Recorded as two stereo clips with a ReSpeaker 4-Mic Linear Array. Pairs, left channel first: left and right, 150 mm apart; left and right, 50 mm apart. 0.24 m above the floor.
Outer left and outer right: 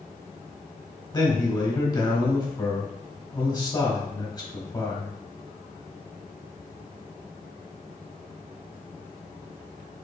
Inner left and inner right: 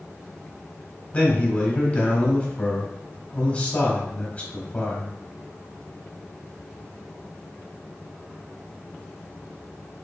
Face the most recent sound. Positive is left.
turn(degrees=30)  # may be behind; listen again after turning